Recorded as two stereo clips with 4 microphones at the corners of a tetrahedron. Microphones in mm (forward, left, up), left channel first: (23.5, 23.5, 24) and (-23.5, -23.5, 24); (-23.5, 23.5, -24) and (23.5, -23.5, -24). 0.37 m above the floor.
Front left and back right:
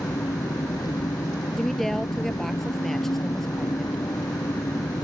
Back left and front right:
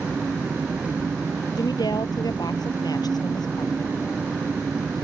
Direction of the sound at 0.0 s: 25° left.